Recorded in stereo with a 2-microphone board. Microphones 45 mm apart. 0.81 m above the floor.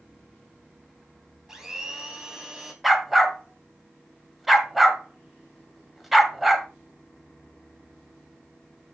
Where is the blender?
15° right (ahead or behind), 2.5 m.